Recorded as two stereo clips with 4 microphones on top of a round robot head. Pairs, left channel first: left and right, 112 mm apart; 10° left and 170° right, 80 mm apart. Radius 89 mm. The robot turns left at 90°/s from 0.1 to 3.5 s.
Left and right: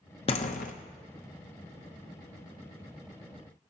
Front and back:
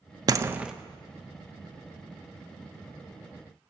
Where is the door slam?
140° left, 0.7 m; by 0.7 s 100° left, 0.7 m.